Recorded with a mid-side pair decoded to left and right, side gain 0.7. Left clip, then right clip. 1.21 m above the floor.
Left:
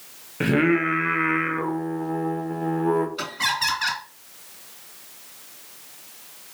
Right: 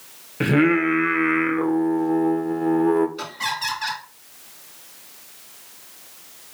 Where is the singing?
5° right, 0.6 m.